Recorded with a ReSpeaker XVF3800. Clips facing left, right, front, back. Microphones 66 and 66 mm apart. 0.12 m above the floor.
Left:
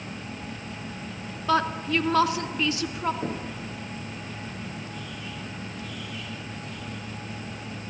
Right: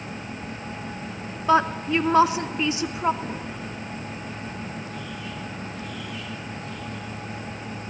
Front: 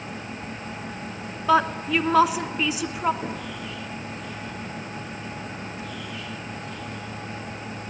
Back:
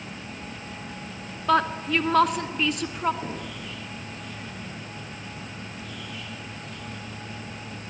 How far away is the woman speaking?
About 1.1 m.